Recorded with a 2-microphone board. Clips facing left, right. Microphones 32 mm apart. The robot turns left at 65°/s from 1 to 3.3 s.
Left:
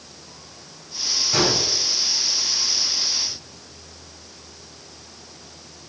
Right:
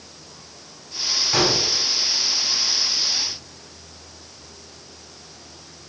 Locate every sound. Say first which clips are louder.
1.3 s a gunshot: even; 15° right (ahead or behind), 3 m; by 1.6 s centre (ahead or behind), 3 m